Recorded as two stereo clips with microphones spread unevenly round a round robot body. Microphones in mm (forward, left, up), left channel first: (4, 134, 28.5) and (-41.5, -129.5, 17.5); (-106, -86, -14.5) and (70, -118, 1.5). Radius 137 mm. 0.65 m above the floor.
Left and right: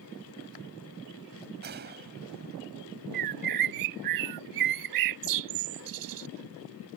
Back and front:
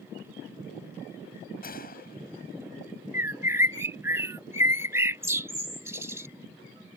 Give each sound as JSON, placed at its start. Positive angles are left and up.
{"t": 1.6, "sound": "a gunshot", "azimuth_deg": -155}
{"t": 3.1, "sound": "a bird", "azimuth_deg": -85}